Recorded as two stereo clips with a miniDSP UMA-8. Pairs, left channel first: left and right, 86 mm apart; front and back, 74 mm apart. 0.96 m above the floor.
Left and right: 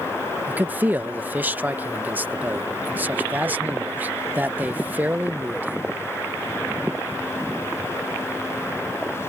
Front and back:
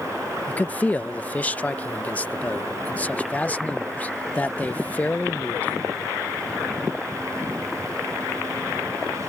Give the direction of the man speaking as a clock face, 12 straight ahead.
1 o'clock.